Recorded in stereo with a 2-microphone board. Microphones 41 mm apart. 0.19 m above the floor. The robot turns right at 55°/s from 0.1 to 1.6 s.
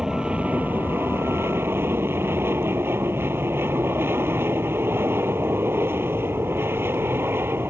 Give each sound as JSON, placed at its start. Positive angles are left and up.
{"t": 0.0, "sound": "an aircraft", "azimuth_deg": -160}